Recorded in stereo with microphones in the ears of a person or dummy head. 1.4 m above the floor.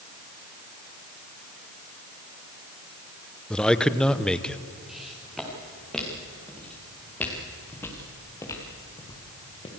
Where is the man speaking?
5° left (ahead or behind), 1.0 m.